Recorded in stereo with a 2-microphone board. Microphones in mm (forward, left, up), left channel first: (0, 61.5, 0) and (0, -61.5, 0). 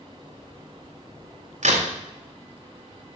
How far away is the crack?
About 1.7 m.